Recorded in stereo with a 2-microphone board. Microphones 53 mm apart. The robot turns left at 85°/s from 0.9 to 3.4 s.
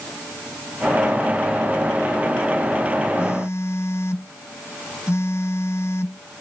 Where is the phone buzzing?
55° left (ahead or behind).